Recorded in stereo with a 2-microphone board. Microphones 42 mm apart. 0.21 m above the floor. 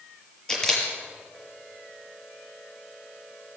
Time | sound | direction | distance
0.5 | a camera shutter | 15° left (ahead or behind) | 5.5 m